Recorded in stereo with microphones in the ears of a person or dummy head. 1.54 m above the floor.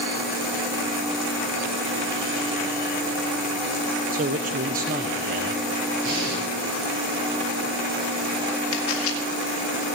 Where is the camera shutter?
75° left (ahead or behind), 3 m.